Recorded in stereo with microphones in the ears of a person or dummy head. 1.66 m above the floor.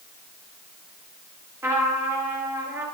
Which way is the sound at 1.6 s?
15° right (ahead or behind).